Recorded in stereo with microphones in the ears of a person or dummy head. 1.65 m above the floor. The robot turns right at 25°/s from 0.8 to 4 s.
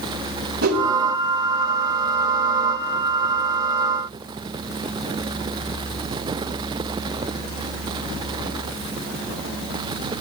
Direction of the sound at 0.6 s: 55° right (ahead or behind).